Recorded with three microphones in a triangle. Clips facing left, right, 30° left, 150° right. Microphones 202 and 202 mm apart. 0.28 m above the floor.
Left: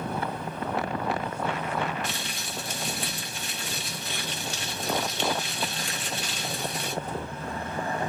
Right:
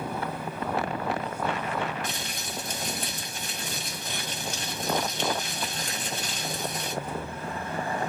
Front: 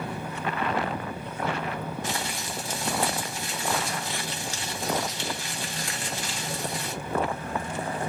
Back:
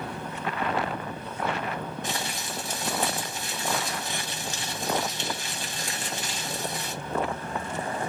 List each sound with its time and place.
2.0 s crumpling: 85° right, 2.0 m